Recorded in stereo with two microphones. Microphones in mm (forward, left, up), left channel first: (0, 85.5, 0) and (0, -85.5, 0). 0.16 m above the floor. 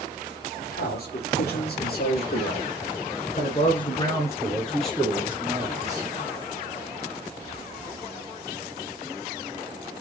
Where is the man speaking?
75° left (ahead or behind), 4 m; by 6.1 s 25° right (ahead or behind), 3 m.